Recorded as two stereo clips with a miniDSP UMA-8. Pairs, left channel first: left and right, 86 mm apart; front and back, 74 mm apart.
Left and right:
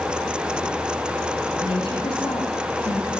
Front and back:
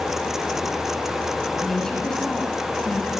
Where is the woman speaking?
85° left, 6 m; by 3.2 s 70° left, 7 m.